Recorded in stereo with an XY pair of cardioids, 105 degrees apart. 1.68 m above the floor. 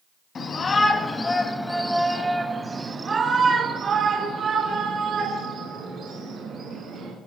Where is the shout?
45° left, 3.5 m; by 7.1 s 70° right, 8 m.